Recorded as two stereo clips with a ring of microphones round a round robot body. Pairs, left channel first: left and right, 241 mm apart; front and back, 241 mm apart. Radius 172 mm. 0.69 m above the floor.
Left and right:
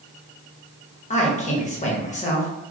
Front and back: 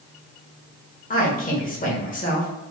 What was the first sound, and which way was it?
A man speaking, 40° left.